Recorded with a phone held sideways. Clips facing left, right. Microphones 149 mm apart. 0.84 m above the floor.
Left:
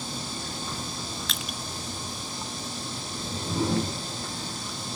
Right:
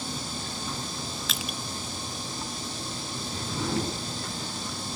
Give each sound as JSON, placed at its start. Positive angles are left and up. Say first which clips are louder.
{"t": 1.3, "sound": "crushing", "louder": "right 1 dB", "side_deg": 0, "distance_m": 0.7}
{"t": 3.1, "sound": "a whoosh", "louder": "left 3 dB", "side_deg": 25, "distance_m": 8.5}